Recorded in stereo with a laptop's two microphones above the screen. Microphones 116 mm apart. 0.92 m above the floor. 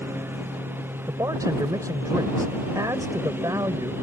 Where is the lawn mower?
20° right (ahead or behind).